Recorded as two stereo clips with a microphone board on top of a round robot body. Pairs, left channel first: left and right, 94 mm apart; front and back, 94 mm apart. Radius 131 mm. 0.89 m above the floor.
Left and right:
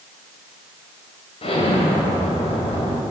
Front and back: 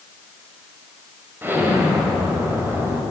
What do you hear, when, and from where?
1.4 s an explosion: 110° left, 5 m